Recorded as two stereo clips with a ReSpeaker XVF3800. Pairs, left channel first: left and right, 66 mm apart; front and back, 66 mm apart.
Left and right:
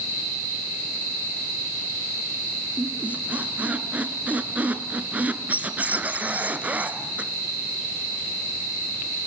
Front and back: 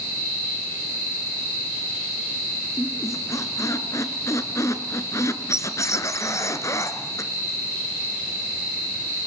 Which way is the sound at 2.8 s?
25° right.